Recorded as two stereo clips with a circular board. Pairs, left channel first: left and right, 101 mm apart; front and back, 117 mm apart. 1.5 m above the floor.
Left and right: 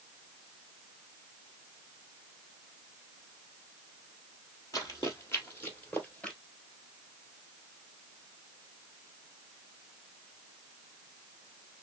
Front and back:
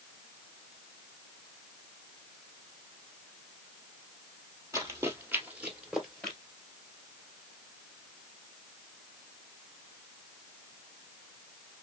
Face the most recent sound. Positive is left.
turn(degrees=50)